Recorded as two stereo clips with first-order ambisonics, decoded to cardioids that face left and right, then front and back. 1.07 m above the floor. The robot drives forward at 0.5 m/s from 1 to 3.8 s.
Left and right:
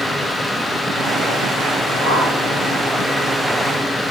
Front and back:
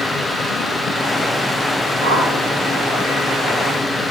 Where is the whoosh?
155° left, 1.7 m; by 2.3 s 160° left, 1.8 m.